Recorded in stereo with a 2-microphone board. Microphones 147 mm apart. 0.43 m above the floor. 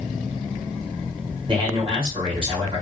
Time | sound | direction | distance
1.5 | a man speaking | 35° right (ahead or behind) | 1.7 m